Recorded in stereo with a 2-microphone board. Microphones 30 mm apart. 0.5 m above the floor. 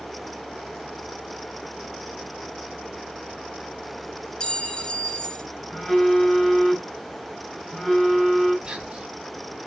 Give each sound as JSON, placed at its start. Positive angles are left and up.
{"t": 4.4, "sound": "a clink", "side_deg": 30, "distance_m": 1.1}
{"t": 5.7, "sound": "a phone buzzing", "side_deg": 10, "distance_m": 5.5}
{"t": 8.7, "sound": "whispering", "side_deg": -30, "distance_m": 3.0}